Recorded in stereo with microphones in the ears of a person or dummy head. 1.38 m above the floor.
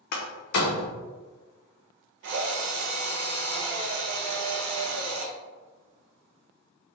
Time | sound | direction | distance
0.1 | a door slam | 55° left (ahead or behind) | 0.5 m
2.2 | a drill | 60° right (ahead or behind) | 0.5 m